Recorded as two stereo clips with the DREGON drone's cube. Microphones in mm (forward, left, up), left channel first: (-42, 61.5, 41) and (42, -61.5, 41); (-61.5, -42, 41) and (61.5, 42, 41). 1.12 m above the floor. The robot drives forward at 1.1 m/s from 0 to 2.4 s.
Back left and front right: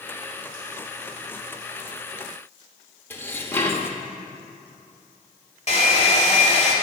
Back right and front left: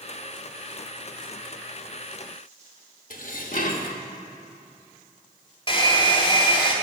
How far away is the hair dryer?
About 1.9 m.